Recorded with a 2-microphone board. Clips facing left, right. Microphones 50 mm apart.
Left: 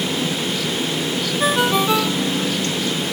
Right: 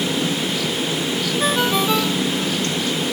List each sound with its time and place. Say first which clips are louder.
1.4 s a ringtone: left 2 dB; 10° left (ahead or behind)